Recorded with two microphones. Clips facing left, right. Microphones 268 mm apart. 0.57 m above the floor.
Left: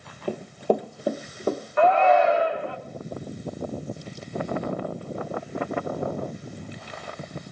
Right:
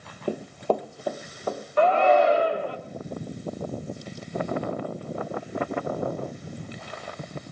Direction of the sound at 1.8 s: 40° right (ahead or behind).